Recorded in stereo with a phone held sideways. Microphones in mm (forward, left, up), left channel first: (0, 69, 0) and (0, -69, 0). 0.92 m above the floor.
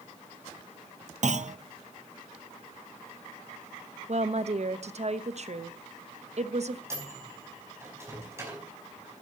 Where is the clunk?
60° right (ahead or behind), 0.6 m.